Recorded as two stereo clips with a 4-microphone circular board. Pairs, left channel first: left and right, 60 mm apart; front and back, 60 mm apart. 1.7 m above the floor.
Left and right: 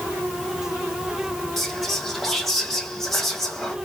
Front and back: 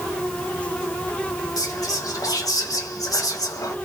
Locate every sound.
1.6 s whispering: straight ahead, 1.3 m